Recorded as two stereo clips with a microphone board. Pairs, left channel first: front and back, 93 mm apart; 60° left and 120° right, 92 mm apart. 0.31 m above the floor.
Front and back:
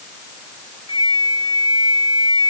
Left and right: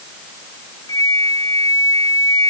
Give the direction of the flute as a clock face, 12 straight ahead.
12 o'clock.